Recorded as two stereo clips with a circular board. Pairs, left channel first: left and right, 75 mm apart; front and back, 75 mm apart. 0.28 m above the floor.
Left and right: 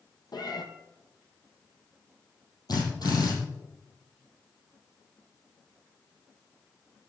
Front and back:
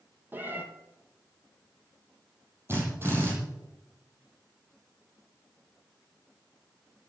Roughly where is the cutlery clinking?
I don't hear cutlery clinking.